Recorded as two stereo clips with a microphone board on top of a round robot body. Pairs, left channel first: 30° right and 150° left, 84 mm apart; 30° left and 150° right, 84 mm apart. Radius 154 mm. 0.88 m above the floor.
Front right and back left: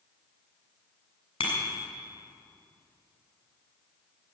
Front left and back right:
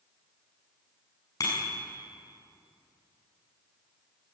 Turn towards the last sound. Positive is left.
turn(degrees=-20)